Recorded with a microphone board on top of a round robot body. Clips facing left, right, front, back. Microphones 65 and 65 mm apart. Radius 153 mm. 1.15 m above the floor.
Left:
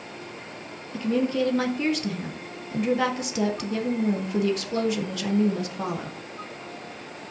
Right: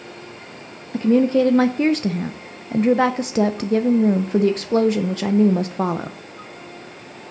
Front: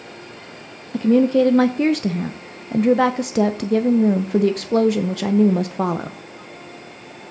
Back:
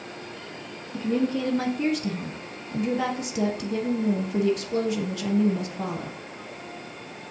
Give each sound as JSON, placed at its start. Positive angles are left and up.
{"t": 0.9, "sound": "a woman speaking", "azimuth_deg": -40, "distance_m": 0.5}